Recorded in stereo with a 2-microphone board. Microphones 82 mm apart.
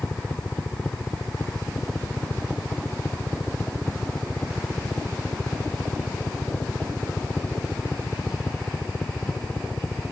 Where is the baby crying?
I don't hear a baby crying.